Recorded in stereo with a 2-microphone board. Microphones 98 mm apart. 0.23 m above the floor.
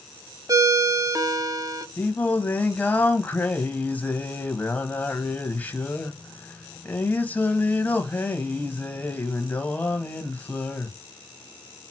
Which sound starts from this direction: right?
A ringtone, at 0.5 s.